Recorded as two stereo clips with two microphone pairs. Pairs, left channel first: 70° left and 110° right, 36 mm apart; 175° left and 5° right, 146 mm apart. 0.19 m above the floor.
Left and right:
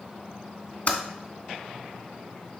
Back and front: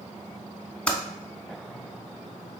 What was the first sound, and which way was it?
Typing on a keyboard, 95° left.